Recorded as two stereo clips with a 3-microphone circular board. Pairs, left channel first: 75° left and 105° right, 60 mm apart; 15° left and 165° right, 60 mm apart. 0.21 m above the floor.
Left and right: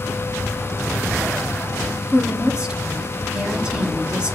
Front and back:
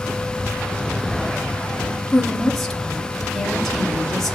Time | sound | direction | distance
2.1 | a woman speaking | 65° right | 1.0 m